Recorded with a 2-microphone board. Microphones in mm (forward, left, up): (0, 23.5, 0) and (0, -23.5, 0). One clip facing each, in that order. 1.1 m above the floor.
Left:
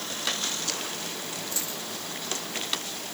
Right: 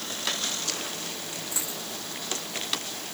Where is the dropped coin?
20° right (ahead or behind).